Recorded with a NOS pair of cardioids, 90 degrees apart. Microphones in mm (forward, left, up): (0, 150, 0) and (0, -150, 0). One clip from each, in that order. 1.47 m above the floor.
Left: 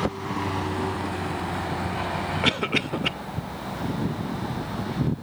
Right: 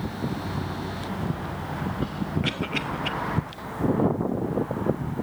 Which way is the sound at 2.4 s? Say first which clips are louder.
Left 5 dB; 35° left.